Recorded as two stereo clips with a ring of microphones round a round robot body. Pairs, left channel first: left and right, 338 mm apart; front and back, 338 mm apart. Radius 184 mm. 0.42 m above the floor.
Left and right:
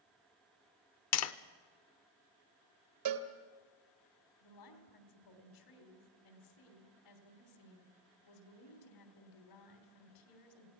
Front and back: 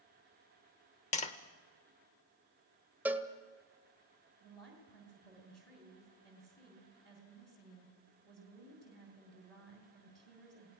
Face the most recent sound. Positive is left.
turn(degrees=90)